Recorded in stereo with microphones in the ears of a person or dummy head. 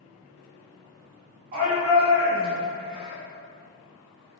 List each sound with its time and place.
1.5 s a shout: 35° right (ahead or behind), 1.4 m